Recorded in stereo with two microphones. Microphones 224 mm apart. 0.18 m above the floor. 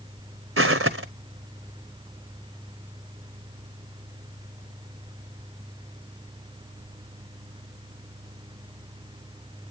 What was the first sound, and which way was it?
Footsteps, 70° right (ahead or behind).